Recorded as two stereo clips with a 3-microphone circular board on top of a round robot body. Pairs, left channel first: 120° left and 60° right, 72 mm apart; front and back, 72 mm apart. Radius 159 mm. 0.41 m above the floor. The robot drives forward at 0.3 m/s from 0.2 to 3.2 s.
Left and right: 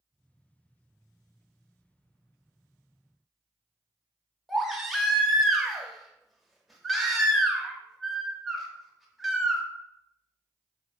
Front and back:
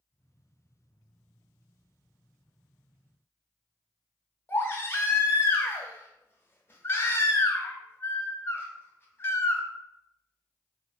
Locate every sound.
4.5 s a baby crying: 25° left, 0.7 m